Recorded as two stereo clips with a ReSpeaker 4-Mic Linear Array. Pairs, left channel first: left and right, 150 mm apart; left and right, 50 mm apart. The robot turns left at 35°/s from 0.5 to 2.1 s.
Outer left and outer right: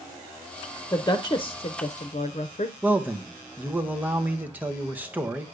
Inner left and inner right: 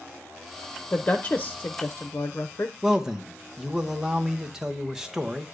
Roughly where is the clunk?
No clunk in this recording.